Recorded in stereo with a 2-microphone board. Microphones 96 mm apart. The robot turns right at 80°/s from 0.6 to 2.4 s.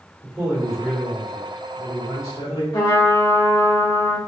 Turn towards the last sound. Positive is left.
turn(degrees=55)  # may be behind; listen again after turning